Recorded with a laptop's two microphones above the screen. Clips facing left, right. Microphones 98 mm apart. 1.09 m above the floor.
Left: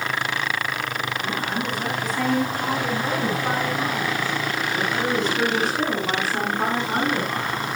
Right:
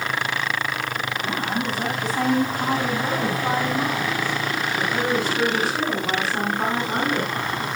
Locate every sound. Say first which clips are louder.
1.2 s a woman speaking: right 3 dB; 35° right (ahead or behind), 8.5 m; by 7.8 s 10° left (ahead or behind), 9.5 m